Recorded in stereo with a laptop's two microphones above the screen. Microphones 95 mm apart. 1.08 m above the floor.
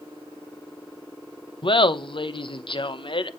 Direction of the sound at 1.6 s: 60° left (ahead or behind).